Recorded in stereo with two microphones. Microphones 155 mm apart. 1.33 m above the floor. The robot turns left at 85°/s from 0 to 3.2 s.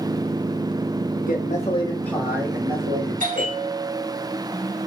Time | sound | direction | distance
1.2 | a man speaking | 85° left | 1.5 m
3.2 | a bell | 60° right (ahead or behind) | 1.6 m